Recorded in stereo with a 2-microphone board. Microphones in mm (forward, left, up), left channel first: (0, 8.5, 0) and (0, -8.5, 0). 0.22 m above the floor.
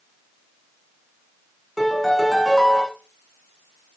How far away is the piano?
About 8 m.